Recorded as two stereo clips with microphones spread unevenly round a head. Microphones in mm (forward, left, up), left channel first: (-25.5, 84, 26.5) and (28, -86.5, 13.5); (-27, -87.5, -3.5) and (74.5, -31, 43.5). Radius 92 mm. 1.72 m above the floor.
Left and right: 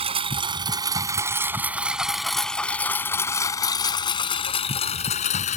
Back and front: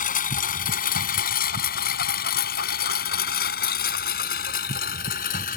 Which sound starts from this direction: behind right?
A lawn mower, at 0.0 s.